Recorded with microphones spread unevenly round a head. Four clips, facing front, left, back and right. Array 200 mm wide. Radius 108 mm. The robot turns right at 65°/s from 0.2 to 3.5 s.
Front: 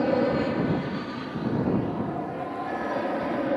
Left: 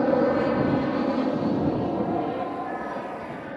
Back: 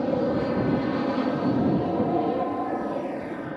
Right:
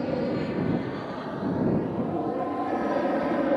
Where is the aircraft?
60° left; by 3.6 s 85° right.